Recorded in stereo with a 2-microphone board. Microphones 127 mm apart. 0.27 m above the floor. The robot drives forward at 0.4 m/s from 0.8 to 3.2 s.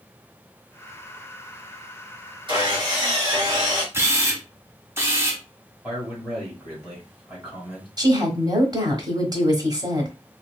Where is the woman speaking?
35° right (ahead or behind), 1.1 m.